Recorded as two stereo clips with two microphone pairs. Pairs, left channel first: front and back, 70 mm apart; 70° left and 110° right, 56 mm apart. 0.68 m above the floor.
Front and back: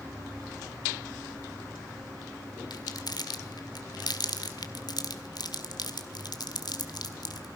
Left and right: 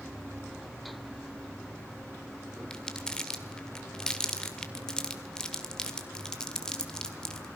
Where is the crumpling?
5° right, 1.7 m.